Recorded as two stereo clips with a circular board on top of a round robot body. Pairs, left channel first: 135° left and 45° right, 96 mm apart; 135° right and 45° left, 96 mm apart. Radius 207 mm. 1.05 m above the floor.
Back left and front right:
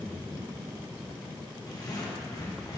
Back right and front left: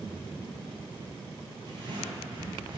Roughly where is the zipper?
Left.